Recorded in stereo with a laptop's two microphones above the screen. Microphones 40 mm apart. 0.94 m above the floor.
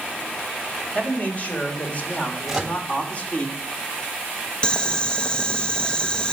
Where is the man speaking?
35° left (ahead or behind), 4.5 m.